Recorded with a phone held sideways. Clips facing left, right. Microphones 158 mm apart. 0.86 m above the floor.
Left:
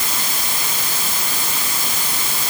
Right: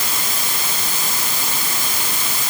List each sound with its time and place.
Only background noise.